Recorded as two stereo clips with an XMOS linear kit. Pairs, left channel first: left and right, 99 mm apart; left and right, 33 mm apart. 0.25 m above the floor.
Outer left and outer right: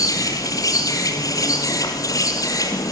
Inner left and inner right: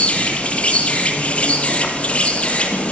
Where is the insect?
40° left (ahead or behind), 2.5 m.